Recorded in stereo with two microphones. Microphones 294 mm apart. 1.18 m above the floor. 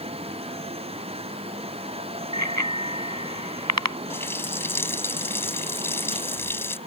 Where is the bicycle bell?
75° right (ahead or behind); by 4.0 s 65° right (ahead or behind).